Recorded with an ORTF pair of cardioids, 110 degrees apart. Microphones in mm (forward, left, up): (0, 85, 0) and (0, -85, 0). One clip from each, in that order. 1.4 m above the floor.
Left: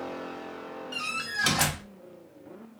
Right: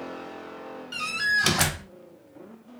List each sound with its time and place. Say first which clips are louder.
0.9 s a door slam: right 7 dB; 20° right, 0.8 m